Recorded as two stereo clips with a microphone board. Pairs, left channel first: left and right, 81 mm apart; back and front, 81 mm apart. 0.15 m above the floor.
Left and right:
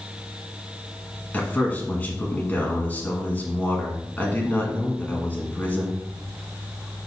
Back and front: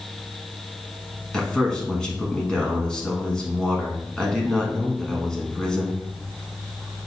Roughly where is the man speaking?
Behind left.